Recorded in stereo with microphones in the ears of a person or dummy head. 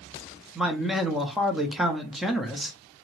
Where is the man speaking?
5° right (ahead or behind), 0.5 m.